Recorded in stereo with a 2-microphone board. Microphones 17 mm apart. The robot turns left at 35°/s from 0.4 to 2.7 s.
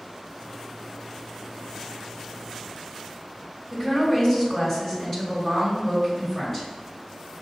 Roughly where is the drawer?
No drawer in this recording.